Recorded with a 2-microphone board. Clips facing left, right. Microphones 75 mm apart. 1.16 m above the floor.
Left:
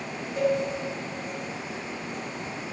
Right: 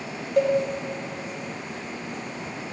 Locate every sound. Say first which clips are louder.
0.4 s a cowbell: right 4 dB; 80° right, 1.6 m